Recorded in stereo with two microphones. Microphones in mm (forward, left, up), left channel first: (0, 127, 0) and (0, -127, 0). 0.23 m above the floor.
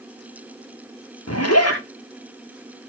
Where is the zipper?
70° left (ahead or behind), 5 m.